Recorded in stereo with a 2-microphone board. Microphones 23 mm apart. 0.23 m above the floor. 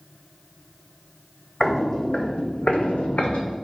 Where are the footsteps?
20° left (ahead or behind), 0.7 m; by 3.5 s 55° left (ahead or behind), 0.8 m.